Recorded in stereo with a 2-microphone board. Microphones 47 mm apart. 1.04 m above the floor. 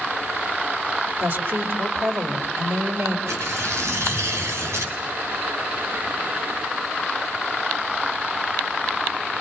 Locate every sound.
1.2 s a woman speaking: 50° right (ahead or behind), 4.5 m
3.3 s tearing paper: 80° right, 7 m